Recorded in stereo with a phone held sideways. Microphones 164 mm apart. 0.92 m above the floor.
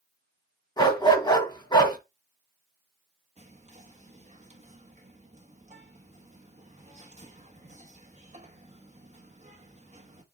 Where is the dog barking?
25° left (ahead or behind), 1.8 m.